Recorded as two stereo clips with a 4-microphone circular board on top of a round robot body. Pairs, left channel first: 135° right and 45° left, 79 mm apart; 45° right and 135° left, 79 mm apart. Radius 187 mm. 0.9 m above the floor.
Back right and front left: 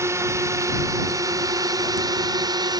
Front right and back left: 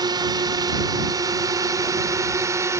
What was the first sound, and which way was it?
A drone, 100° left.